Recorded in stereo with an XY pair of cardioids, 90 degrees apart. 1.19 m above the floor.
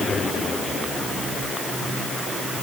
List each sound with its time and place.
Only background noise.